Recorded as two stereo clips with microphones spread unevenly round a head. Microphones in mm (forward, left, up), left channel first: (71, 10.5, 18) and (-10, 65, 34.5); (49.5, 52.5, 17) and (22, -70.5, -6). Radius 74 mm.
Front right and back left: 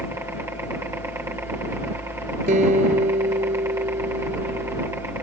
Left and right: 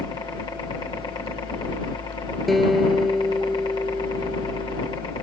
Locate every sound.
0.0 s a helicopter: 100° left
2.5 s a guitar: 165° left